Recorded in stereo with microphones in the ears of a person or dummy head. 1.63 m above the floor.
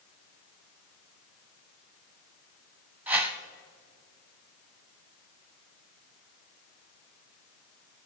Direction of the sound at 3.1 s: 5° right (ahead or behind).